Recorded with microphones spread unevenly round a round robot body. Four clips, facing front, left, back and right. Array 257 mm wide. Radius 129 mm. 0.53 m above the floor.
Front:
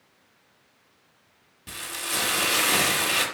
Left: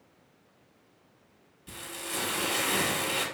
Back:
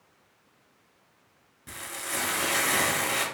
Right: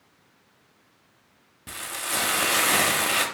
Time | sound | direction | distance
1.7 | frying | 90° right | 0.9 m